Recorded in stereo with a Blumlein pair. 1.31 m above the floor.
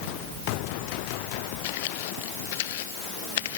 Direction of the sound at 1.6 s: 50° left.